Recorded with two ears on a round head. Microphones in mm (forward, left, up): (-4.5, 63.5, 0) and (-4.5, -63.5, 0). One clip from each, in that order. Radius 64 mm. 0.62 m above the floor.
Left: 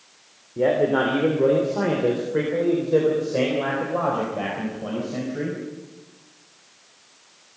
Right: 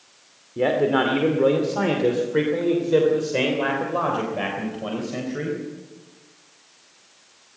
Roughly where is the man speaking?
Right.